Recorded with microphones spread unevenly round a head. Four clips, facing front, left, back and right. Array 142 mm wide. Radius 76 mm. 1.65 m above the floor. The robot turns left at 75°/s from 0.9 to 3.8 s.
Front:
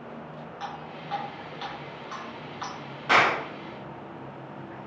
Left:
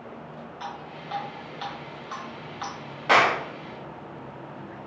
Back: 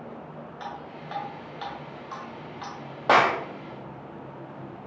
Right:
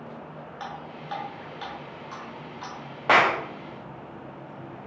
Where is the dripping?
155° right, 1.7 m; by 2.7 s 70° left, 1.7 m.